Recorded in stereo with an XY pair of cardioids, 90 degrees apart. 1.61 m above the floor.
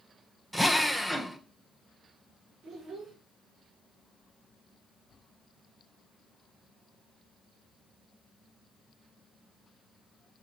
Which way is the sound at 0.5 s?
5° right.